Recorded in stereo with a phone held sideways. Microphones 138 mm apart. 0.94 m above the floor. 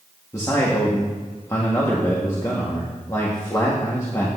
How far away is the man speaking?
About 1.7 m.